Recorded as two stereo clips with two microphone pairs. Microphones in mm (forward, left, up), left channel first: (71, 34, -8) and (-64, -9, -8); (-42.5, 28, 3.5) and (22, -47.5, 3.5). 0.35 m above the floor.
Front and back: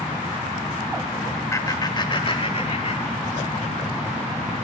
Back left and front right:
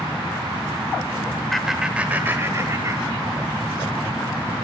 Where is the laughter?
45° left, 1.2 m; by 3.5 s 10° right, 2 m.